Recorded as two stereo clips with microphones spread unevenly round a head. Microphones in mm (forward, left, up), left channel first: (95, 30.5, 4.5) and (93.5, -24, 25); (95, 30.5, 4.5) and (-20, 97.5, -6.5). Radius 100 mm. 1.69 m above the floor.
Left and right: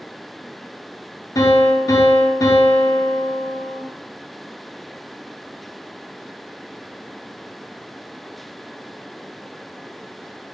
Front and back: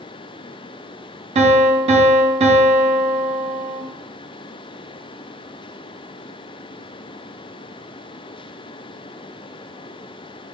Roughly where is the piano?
Behind left.